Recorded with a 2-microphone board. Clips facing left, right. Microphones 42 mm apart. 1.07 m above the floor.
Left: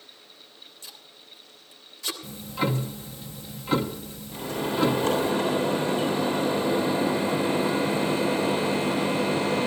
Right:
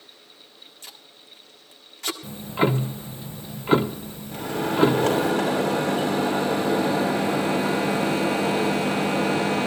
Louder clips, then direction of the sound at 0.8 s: Right 3 dB; 60° right (ahead or behind).